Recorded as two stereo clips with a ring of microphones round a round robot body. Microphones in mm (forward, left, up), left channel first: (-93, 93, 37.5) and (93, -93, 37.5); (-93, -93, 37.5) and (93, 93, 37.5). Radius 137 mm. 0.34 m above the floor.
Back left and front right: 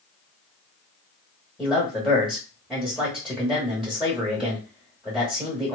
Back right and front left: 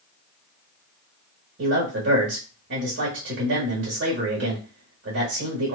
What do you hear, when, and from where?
1.6 s a man speaking: 45° left, 1.1 m